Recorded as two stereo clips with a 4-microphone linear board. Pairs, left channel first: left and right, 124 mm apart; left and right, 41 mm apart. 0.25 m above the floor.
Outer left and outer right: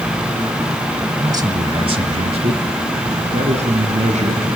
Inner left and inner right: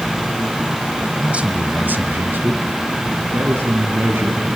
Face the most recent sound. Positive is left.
turn(degrees=-65)  # may be behind; listen again after turning